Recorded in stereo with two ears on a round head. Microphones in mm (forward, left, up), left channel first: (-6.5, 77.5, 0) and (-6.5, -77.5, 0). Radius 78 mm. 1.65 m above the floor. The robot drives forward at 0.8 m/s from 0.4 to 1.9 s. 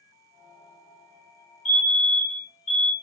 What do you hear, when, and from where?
1.6 s a fire alarm: 40° left (ahead or behind), 4 m